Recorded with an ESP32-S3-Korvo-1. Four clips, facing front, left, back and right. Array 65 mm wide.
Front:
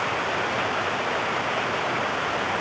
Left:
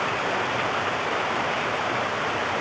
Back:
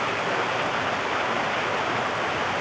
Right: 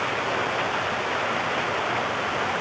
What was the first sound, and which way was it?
Only background noise.